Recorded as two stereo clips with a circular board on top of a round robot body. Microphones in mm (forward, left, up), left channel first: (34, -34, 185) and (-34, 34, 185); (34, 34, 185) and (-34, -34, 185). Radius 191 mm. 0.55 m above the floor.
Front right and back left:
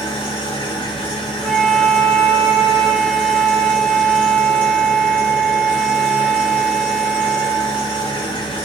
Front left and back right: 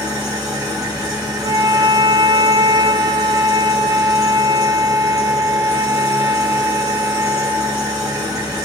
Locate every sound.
0.0 s an engine running: 75° right, 1.4 m
1.4 s a flute: 135° right, 0.7 m